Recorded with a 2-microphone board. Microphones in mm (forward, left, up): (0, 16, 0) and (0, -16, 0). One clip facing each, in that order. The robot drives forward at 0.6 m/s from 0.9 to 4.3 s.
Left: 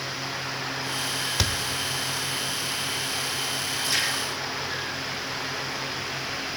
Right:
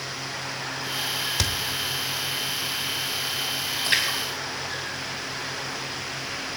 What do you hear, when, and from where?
1.4 s a thud: 10° left (ahead or behind), 0.7 m
3.8 s a splash: 50° right (ahead or behind), 3.5 m; by 5.7 s 45° right (ahead or behind), 4 m